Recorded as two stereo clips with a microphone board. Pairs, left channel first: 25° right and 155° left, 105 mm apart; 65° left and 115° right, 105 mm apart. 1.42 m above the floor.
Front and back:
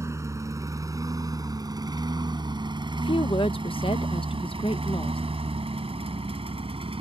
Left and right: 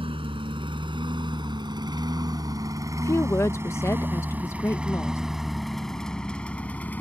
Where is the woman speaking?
5° left.